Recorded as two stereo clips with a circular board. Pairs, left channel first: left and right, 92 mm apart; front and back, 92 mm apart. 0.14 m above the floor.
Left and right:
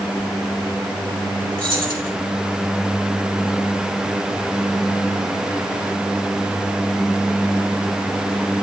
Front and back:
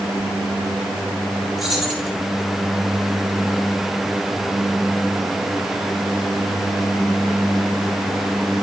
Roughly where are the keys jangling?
Right.